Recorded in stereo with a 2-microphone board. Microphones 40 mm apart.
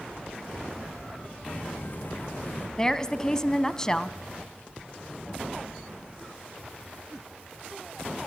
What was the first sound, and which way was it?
Footsteps, 45° left (ahead or behind).